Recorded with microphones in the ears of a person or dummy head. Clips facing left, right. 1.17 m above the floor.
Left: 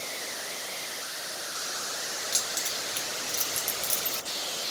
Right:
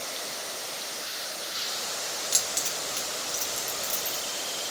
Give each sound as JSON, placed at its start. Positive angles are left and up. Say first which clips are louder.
{"t": 2.3, "sound": "keys jangling", "louder": "right 2 dB", "side_deg": -10, "distance_m": 0.8}